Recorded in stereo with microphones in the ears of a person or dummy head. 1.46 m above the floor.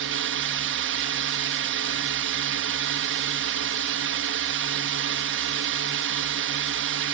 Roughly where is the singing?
No singing in this recording.